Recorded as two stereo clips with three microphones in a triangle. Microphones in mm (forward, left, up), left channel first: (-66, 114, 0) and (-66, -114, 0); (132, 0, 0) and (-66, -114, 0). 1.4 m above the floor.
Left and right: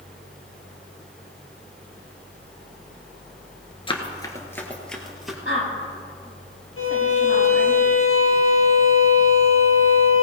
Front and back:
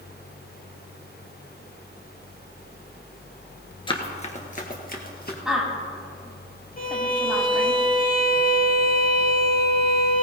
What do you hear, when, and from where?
3.9 s running footsteps: 65° left, 1.5 m; by 5.3 s 5° right, 2 m
5.5 s a woman speaking: 125° left, 4 m
6.8 s a violin: 80° left, 1.8 m